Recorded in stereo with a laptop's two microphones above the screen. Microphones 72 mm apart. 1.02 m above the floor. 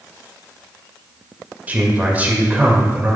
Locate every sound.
1.7 s a man speaking: 25° right (ahead or behind), 1.7 m